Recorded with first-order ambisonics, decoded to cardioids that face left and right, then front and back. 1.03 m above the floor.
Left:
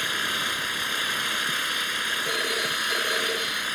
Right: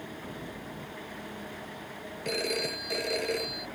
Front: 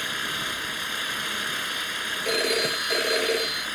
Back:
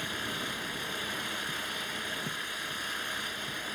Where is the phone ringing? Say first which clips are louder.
Left 6 dB, front 12 dB; straight ahead.